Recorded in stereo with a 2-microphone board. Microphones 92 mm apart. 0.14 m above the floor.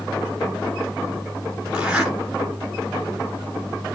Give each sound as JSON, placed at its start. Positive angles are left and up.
{"t": 1.7, "sound": "a zipper", "side_deg": -10, "distance_m": 1.3}